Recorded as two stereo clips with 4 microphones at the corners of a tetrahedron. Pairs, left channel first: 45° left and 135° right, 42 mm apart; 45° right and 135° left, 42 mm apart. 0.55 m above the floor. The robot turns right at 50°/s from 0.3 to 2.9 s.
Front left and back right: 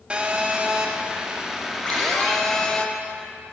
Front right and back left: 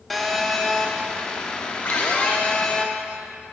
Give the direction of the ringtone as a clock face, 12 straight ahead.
12 o'clock.